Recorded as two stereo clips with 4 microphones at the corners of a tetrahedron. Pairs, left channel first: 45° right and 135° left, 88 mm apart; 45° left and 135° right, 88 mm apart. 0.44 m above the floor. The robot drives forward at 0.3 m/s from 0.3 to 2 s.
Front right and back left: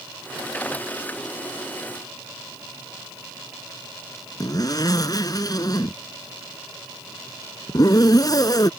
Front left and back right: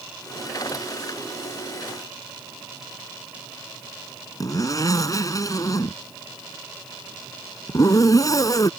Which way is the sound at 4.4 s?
Straight ahead.